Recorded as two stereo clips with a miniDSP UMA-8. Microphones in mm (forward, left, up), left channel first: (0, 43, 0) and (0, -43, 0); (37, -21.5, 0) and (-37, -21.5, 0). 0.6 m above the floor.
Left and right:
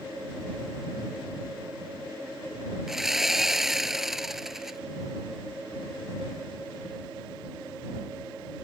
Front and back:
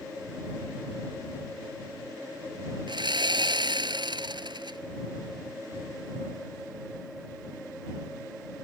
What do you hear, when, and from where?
2.9 s sawing: 175° right